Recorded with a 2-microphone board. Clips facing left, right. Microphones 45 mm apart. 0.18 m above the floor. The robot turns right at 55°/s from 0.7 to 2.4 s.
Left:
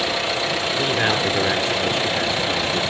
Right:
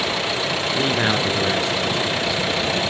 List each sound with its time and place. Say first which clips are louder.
0.7 s a man speaking: right 1 dB; 25° right, 2.0 m; by 2.8 s 70° left, 2.0 m